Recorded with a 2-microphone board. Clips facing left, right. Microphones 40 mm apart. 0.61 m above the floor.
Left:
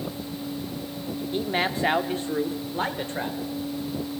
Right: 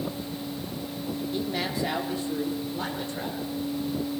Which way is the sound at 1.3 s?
35° left (ahead or behind).